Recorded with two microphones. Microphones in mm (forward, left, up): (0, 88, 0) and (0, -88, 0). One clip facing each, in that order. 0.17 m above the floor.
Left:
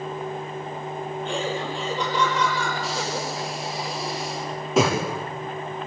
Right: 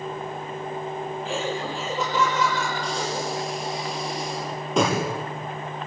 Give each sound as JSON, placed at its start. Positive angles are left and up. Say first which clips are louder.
{"t": 1.2, "sound": "laughter", "louder": "left 1 dB", "side_deg": 0, "distance_m": 5.0}
{"t": 2.8, "sound": "breathing", "louder": "right 1 dB", "side_deg": 5, "distance_m": 6.5}